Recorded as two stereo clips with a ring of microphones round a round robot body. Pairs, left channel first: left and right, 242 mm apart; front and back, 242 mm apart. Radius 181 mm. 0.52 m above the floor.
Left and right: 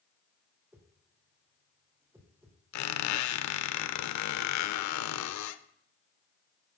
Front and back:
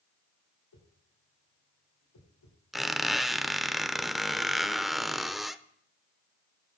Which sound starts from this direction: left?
A squeak, at 2.7 s.